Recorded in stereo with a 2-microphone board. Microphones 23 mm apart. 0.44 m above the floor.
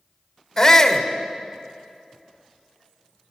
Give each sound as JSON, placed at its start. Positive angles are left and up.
{"t": 0.6, "sound": "a shout", "side_deg": 25, "distance_m": 1.8}